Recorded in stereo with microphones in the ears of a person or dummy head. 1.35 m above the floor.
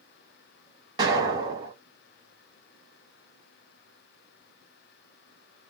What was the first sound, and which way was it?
An explosion, 20° right (ahead or behind).